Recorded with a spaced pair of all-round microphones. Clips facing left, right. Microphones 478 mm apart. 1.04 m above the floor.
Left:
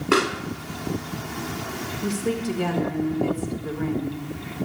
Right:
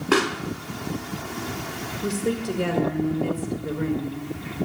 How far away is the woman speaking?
About 1.7 m.